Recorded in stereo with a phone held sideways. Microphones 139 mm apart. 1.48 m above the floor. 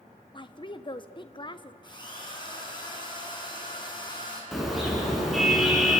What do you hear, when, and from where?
0.3 s a woman speaking: 35° left (ahead or behind), 1.2 m
1.8 s a drill: 35° left (ahead or behind), 5.5 m
4.5 s a car horn: centre (ahead or behind), 6.5 m